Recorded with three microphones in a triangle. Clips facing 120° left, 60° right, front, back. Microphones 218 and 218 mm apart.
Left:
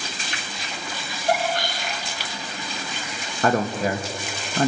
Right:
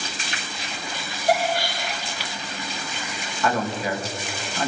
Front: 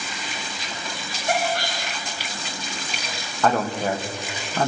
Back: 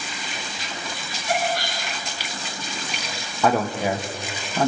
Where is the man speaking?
100° left, 1.5 m.